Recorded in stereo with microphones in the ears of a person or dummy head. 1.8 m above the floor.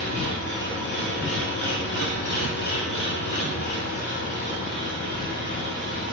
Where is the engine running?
60° left (ahead or behind), 3 m.